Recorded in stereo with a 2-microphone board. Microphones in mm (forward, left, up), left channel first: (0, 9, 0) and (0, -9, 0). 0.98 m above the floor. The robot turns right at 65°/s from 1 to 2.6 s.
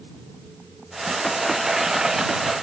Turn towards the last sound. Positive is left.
No sound to turn to.